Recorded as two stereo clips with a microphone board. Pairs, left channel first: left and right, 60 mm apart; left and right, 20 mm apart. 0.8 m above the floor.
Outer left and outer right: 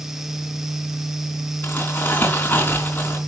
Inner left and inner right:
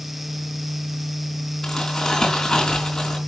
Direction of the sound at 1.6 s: 35° left (ahead or behind).